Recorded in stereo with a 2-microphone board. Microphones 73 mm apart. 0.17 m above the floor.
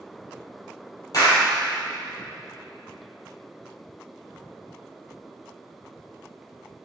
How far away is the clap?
About 3.5 m.